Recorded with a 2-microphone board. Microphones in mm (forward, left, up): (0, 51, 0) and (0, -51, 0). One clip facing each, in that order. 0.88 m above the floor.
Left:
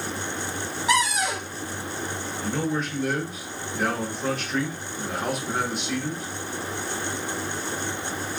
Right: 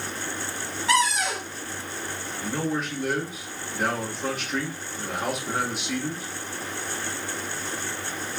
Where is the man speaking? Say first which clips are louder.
Left 1 dB; 5° right (ahead or behind), 1.0 m.